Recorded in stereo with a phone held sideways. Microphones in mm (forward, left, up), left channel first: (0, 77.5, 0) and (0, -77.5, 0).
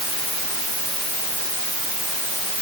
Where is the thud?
I don't hear a thud.